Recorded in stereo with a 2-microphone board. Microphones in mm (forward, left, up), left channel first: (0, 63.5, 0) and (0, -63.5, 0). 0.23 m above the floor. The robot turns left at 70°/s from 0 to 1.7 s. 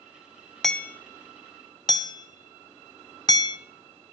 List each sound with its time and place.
0.6 s hammering: centre (ahead or behind), 0.6 m; by 3.6 s 30° left (ahead or behind), 0.6 m